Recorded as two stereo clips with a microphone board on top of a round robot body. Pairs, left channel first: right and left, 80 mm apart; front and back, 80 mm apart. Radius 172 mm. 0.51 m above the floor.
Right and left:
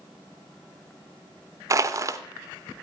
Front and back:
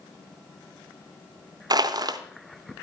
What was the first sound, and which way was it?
Crushing, 140° left.